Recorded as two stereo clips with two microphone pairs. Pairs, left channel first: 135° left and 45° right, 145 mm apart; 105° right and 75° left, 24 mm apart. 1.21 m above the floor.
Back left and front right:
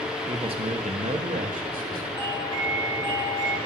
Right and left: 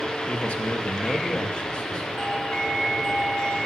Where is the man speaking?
100° right, 1.0 m; by 2.1 s 60° right, 2 m.